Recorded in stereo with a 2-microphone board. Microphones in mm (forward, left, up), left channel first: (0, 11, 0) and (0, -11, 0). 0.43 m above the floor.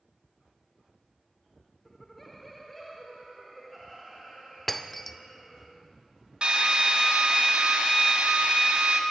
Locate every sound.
1.9 s laughter: 10° left (ahead or behind), 0.9 m; by 5.7 s 5° left (ahead or behind), 3 m
4.7 s breaking glass: 15° left (ahead or behind), 0.6 m
6.4 s a drill: 50° right (ahead or behind), 1.8 m